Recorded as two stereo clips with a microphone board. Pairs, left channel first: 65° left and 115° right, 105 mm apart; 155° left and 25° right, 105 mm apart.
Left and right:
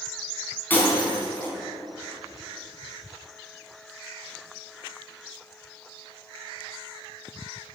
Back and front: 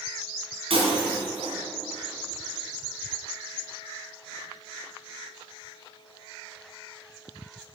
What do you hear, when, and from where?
0.7 s breaking glass: 5° right, 3.5 m